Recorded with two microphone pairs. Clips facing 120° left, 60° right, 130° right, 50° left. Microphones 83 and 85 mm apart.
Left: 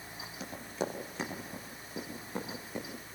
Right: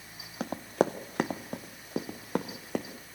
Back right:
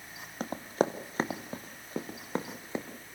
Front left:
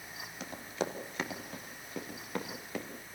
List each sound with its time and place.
0.4 s running footsteps: 85° right, 1.7 m; by 2.9 s 65° right, 3 m